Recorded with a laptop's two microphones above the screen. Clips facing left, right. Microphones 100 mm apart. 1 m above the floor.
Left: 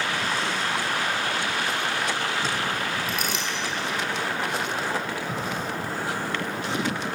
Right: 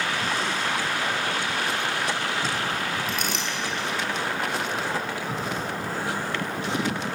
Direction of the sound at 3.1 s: Centre (ahead or behind).